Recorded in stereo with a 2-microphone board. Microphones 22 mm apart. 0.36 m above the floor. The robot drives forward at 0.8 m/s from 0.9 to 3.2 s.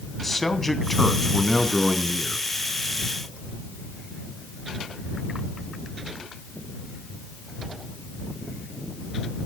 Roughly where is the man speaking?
Centre.